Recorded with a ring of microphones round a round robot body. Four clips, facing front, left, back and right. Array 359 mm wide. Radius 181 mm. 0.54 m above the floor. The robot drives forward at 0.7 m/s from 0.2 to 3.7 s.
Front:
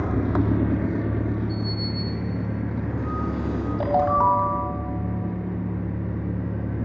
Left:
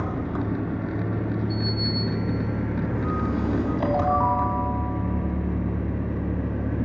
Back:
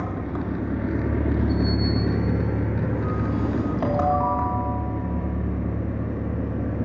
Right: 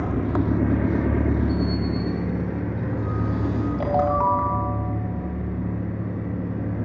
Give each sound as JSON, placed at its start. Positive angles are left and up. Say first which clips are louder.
{"t": 0.0, "sound": "an engine running", "louder": "right 4 dB, front 5 dB", "azimuth_deg": -35, "distance_m": 0.8}
{"t": 1.5, "sound": "a sliding door", "louder": "right 4 dB, back 6 dB", "azimuth_deg": -105, "distance_m": 3.5}
{"t": 3.8, "sound": "a ringtone", "louder": "right 2 dB, front 4 dB", "azimuth_deg": -35, "distance_m": 2.5}